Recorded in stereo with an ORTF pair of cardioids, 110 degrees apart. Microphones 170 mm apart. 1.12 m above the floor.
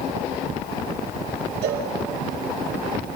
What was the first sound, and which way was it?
A cowbell, 70° right.